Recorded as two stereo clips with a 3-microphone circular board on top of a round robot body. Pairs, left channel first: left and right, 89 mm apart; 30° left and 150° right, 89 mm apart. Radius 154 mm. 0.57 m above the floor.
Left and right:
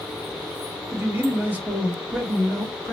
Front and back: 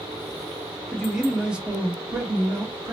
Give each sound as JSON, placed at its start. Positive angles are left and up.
{"t": 0.9, "sound": "a man speaking", "azimuth_deg": -55, "distance_m": 1.2}